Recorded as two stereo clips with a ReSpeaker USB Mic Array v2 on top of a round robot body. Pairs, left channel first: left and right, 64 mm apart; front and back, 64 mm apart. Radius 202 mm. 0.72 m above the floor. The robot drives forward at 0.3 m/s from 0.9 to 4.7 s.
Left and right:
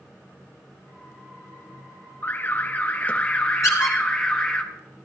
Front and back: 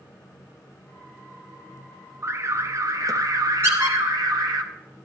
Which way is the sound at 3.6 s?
130° left.